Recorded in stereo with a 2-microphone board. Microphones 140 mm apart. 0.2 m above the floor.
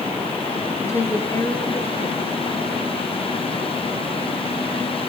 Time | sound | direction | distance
0.8 | a woman speaking | 20° left (ahead or behind) | 3 m